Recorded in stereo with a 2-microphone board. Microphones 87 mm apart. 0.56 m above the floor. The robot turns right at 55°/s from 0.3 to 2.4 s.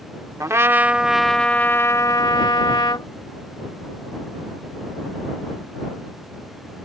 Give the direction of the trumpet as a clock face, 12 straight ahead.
2 o'clock.